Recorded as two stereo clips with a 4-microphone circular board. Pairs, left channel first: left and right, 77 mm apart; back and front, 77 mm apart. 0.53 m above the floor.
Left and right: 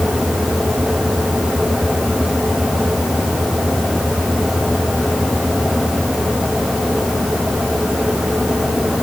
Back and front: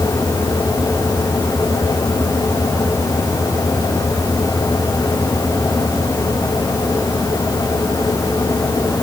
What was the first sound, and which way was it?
Only background noise.